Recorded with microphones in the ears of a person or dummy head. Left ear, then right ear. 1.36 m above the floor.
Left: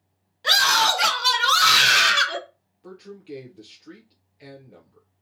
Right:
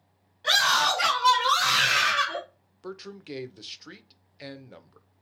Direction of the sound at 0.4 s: 10° left (ahead or behind).